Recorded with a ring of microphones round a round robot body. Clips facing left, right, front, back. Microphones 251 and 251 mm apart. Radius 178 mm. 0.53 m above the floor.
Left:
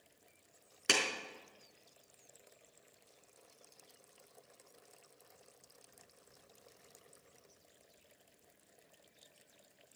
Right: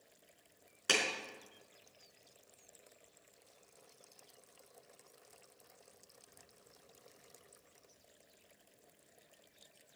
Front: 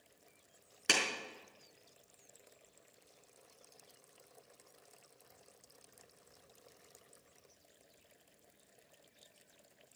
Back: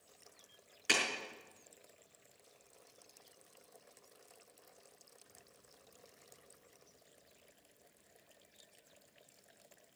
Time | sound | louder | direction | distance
0.9 | a clap | even, front 1 dB | 30° left | 5 m